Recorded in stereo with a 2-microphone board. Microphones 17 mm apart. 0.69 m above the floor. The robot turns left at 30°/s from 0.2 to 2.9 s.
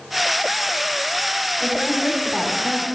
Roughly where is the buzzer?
No buzzer in this recording.